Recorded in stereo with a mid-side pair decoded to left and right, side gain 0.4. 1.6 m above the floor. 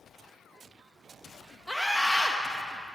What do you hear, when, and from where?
1.7 s a scream: straight ahead, 0.6 m